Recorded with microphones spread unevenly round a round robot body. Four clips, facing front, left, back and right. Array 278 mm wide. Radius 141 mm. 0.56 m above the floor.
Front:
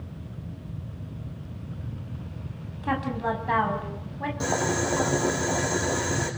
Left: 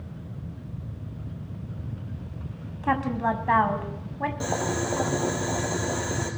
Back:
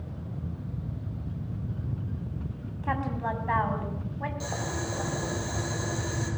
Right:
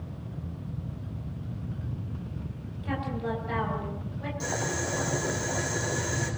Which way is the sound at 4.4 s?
35° left.